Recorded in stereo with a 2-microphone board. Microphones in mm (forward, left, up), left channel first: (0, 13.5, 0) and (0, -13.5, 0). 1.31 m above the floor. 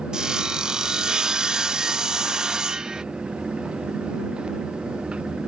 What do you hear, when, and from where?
0.1 s sawing: 25° right (ahead or behind)